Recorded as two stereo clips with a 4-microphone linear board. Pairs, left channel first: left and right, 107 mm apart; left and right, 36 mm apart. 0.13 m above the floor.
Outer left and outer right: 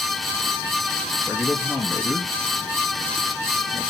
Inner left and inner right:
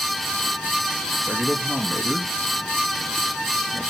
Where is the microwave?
No microwave in this recording.